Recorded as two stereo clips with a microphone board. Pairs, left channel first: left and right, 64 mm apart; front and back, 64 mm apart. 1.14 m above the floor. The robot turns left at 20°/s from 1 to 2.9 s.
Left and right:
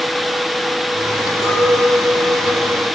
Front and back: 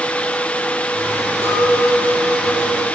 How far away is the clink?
About 1.5 m.